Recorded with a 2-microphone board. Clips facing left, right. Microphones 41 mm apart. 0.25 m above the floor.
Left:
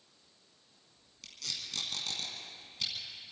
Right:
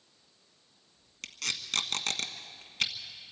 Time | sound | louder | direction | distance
1.2 | tape being pulled | right 6 dB | 60° right (ahead or behind) | 1.4 m